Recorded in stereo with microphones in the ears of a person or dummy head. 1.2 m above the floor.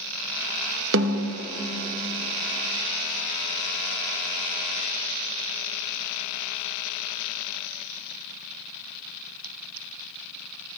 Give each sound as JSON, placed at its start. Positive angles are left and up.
{"t": 0.9, "sound": "a snare drum", "side_deg": -70, "distance_m": 1.2}